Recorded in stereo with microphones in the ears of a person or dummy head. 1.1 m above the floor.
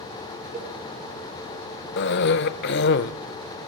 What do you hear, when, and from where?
0.5 s a cowbell: 40° right (ahead or behind), 5 m
2.0 s a cough: 55° left (ahead or behind), 0.7 m